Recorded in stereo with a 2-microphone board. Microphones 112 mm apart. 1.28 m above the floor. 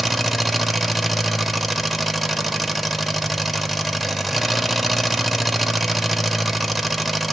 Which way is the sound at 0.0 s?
Centre (ahead or behind).